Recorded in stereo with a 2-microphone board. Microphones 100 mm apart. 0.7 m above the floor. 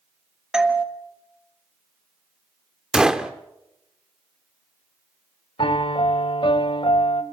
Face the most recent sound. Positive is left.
turn(degrees=60)  # may be behind; listen again after turning